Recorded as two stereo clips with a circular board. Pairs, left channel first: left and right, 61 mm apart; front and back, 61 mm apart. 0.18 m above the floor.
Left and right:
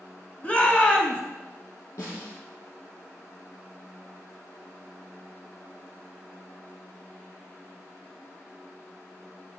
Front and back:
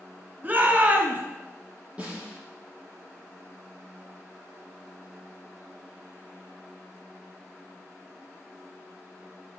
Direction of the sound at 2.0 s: 110° left.